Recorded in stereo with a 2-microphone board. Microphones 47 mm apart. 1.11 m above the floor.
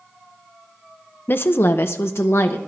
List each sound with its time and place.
1.3 s a woman speaking: 50° left (ahead or behind), 0.6 m; by 2.6 s 75° left (ahead or behind), 1.2 m